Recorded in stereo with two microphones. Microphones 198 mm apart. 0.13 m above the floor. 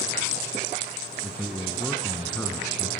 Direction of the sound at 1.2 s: 5° left (ahead or behind).